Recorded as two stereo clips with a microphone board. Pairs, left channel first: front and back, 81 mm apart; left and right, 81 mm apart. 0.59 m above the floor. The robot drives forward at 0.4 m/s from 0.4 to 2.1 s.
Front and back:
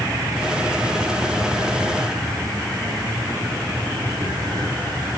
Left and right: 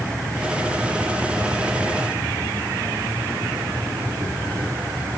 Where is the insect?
140° right, 8.5 m; by 5.2 s 145° right, 9.5 m.